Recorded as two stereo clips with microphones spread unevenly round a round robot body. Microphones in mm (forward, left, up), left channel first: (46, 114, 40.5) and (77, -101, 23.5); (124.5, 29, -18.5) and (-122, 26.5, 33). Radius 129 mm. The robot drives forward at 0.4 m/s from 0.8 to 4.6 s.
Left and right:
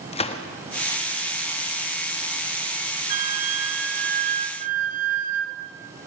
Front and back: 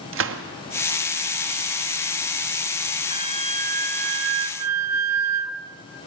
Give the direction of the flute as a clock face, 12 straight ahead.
3 o'clock.